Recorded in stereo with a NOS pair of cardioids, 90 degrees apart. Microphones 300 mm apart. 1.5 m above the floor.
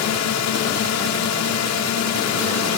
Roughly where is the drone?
Ahead left.